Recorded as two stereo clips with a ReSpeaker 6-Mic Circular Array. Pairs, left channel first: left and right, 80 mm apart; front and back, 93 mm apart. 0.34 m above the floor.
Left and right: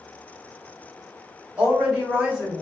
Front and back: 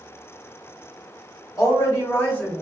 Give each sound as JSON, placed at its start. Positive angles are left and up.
{"t": 1.6, "sound": "a woman speaking", "azimuth_deg": -25, "distance_m": 1.3}